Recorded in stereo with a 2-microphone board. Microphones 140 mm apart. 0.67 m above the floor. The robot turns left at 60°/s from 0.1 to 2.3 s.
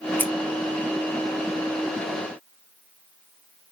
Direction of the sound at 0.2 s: 15° left (ahead or behind).